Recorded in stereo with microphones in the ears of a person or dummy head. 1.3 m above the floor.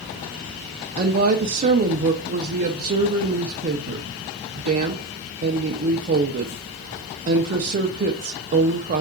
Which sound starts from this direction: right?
A woman speaking, at 1.0 s.